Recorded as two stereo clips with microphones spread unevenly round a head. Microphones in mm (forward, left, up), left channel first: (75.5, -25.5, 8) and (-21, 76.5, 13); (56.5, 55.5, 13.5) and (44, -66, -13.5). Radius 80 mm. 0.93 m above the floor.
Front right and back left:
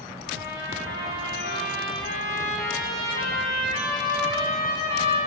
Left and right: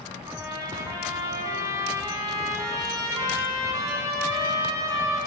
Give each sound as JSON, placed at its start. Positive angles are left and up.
{"t": 0.3, "sound": "a trumpet", "azimuth_deg": -35, "distance_m": 7.5}